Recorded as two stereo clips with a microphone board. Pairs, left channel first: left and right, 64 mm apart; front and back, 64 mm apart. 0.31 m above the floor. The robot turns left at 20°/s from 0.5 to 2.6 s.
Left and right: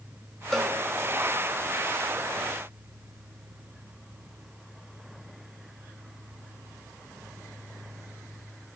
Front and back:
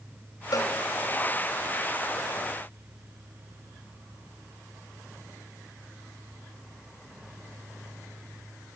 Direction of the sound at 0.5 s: 5° left.